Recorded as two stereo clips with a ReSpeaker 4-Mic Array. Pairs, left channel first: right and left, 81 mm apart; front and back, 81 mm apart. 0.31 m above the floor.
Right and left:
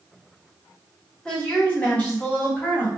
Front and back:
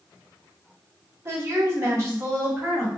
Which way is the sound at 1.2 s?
160° right.